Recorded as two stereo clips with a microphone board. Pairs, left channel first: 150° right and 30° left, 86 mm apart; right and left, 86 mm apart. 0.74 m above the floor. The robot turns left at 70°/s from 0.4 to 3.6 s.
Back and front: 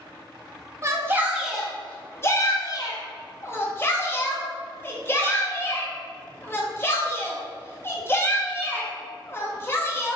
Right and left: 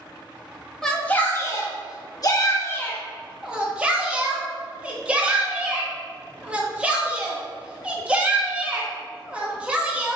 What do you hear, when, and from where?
0.8 s a shout: 5° right, 0.8 m; by 10.2 s 160° left, 0.8 m